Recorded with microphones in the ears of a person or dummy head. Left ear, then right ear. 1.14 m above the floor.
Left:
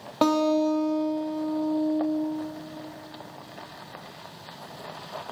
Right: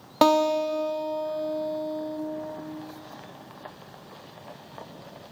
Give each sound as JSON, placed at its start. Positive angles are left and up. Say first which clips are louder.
{"t": 0.2, "sound": "a guitar", "louder": "right 2 dB", "side_deg": -30, "distance_m": 0.9}